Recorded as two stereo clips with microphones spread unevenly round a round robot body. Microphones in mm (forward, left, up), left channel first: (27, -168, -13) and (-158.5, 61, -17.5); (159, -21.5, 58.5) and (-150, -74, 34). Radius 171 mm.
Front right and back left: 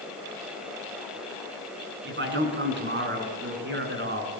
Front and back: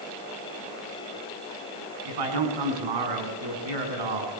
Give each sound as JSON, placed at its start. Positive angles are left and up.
{"t": 2.0, "sound": "a man speaking", "azimuth_deg": 180, "distance_m": 6.0}